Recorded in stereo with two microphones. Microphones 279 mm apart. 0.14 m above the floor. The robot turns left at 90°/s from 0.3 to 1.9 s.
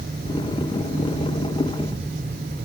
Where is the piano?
I don't hear a piano.